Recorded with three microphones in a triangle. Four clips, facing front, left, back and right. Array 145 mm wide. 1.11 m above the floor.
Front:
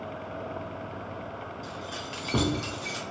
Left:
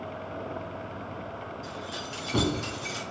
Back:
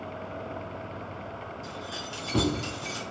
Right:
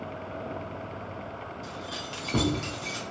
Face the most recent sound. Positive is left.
turn(degrees=15)